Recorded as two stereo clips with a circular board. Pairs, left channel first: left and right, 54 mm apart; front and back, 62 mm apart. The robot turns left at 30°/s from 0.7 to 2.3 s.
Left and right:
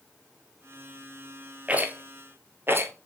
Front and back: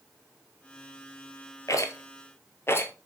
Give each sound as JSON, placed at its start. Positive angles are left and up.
{"t": 1.7, "sound": "a rattle", "azimuth_deg": -25, "distance_m": 1.1}